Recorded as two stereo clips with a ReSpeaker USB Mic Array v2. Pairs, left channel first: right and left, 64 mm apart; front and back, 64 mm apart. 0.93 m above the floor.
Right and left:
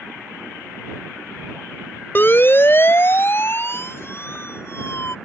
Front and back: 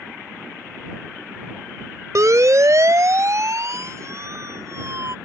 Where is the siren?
145° right; by 5.2 s 140° right.